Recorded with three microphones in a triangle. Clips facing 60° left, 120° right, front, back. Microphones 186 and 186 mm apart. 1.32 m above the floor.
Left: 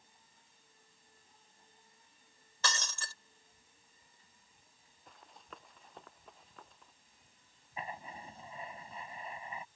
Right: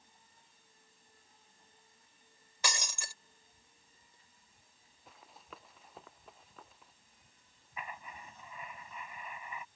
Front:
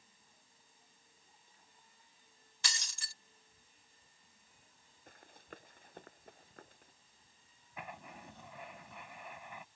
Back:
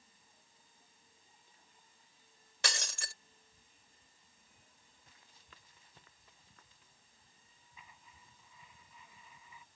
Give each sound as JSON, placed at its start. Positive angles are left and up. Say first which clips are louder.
{"t": 2.6, "sound": "breaking glass", "louder": "even, back 8 dB", "azimuth_deg": 165}
{"t": 5.1, "sound": "running footsteps", "louder": "even, front 13 dB", "azimuth_deg": -35}
{"t": 7.8, "sound": "writing", "louder": "left 3 dB, front 14 dB", "azimuth_deg": 5}